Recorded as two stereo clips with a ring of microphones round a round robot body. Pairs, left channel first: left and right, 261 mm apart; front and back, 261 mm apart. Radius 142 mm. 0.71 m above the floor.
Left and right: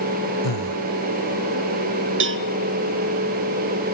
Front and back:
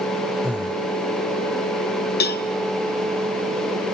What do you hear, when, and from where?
0.4 s breathing: 95° left, 1.1 m
2.2 s a cowbell: 50° right, 0.8 m